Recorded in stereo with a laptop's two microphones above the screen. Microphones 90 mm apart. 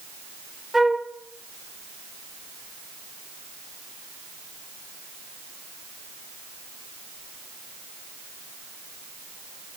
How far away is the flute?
About 1.2 m.